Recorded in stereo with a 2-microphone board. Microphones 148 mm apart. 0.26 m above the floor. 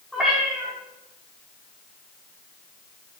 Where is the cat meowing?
Centre (ahead or behind), 6 m.